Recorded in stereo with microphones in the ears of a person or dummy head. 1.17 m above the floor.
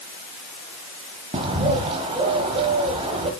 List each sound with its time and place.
1.3 s a bird: 30° right (ahead or behind), 1.5 m